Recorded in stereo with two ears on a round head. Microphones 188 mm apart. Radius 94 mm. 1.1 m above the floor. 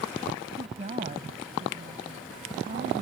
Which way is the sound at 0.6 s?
35° right (ahead or behind).